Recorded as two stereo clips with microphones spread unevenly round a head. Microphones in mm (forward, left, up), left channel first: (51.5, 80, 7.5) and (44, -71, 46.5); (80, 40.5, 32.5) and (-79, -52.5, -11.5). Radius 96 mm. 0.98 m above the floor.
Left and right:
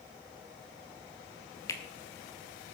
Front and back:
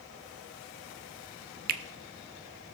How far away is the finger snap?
About 0.6 m.